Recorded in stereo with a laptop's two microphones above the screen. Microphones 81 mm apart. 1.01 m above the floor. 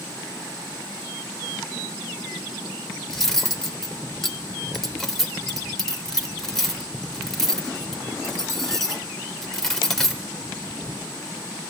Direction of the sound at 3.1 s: 5° left (ahead or behind).